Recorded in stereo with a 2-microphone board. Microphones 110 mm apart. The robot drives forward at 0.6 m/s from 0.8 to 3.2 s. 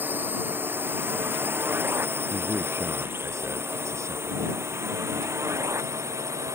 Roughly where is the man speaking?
Right.